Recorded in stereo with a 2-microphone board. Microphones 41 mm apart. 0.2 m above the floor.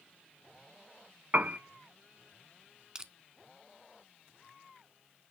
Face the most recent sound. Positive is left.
turn(degrees=-15)  # may be behind; listen again after turning